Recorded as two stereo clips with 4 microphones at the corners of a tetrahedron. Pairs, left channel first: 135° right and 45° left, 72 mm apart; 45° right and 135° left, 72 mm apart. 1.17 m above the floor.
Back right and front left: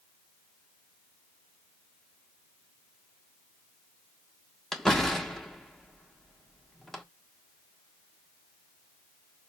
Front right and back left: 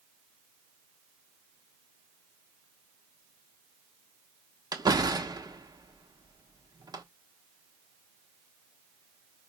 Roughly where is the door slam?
Behind left.